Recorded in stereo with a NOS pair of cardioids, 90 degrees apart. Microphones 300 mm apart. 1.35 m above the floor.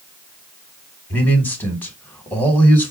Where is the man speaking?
5° left, 2 m.